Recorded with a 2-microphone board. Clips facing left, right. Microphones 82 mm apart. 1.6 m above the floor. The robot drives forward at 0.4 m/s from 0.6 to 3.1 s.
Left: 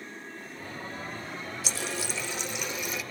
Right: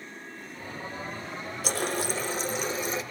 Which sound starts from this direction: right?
A running tap, at 1.6 s.